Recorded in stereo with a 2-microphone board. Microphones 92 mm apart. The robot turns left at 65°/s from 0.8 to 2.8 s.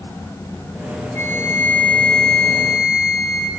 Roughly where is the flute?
Left.